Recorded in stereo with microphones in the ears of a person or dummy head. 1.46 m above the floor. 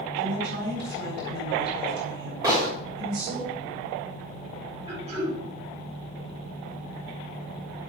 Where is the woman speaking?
55° right (ahead or behind), 4 m.